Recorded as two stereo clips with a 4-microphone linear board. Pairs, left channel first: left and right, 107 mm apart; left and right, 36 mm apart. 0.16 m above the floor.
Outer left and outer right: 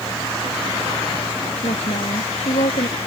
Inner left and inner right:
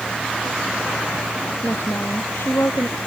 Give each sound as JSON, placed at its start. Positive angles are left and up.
{"t": 1.6, "sound": "a woman speaking", "side_deg": 85}